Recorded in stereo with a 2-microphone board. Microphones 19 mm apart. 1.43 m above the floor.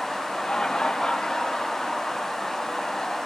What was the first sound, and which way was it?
Laughter, 50° left (ahead or behind).